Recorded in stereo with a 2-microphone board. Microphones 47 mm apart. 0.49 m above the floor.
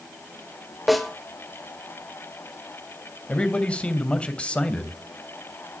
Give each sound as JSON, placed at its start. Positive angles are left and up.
{"t": 0.9, "sound": "a snare drum", "side_deg": 0, "distance_m": 2.5}
{"t": 3.3, "sound": "a man speaking", "side_deg": 20, "distance_m": 2.5}